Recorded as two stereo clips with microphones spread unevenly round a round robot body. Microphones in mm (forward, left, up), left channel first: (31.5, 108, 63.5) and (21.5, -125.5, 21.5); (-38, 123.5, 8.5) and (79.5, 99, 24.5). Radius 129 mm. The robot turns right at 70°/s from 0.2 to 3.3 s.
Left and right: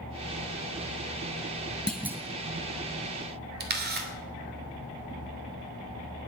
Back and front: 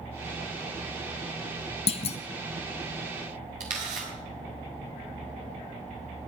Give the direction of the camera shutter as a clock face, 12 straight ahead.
2 o'clock.